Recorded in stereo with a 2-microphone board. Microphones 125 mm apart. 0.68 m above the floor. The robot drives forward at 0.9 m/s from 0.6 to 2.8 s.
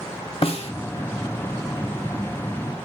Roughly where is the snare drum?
Left.